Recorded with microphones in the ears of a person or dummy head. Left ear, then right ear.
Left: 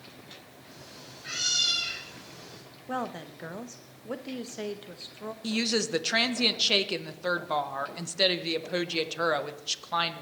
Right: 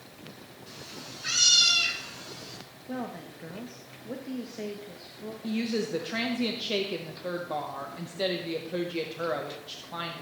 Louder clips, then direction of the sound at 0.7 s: Right 6 dB; 35° right (ahead or behind).